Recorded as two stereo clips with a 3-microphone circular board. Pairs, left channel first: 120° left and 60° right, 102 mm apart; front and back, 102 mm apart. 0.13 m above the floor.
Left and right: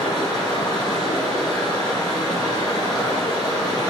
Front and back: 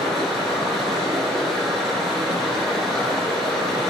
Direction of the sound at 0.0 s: 90° left.